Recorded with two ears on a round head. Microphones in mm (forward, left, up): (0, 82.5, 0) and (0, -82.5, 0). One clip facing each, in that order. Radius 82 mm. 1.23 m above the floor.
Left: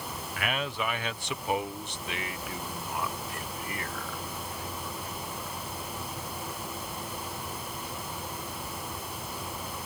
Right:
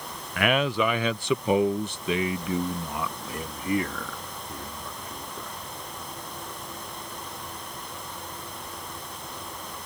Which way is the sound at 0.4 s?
50° right (ahead or behind).